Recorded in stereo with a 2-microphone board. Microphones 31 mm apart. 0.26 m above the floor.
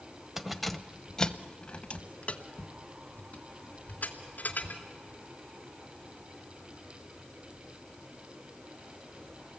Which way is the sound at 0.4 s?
10° right (ahead or behind).